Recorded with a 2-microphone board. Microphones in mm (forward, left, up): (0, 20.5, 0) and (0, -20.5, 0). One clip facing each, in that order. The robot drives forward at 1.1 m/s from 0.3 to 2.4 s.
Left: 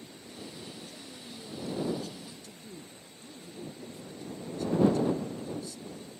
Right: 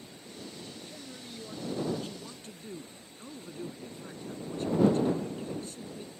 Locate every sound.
0.9 s a man speaking: 25° right (ahead or behind); by 6.1 s 40° right (ahead or behind)